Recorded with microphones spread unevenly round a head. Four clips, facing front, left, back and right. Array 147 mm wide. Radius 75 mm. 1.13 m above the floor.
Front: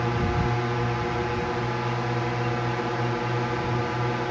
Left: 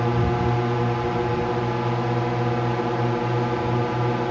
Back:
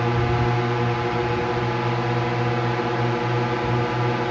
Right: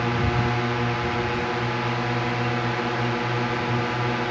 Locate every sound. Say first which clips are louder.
0.0 s a drone: left 2 dB, back 4 dB; 130° left